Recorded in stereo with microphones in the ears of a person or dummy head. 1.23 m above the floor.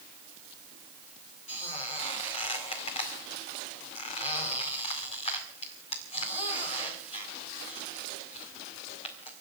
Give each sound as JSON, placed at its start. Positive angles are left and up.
{"t": 1.5, "sound": "a squeak", "side_deg": 35, "distance_m": 2.0}